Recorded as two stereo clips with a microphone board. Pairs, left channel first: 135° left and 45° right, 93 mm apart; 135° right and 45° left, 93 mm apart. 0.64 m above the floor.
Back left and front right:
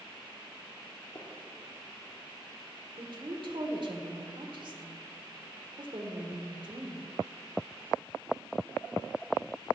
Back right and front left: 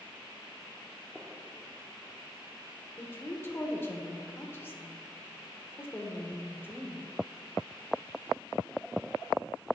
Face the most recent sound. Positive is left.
turn(degrees=-70)